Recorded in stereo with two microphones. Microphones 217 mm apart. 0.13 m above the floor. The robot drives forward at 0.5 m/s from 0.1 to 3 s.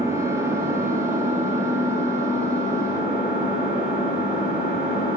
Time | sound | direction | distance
0.0 | an engine running | 15° right (ahead or behind) | 0.9 m